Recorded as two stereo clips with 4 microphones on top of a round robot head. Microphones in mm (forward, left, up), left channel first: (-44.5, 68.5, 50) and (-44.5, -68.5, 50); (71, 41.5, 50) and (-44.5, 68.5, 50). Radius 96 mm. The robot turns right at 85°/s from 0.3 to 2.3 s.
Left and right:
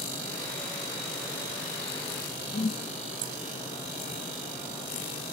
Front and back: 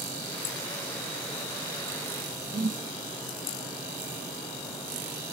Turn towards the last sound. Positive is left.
turn(degrees=135)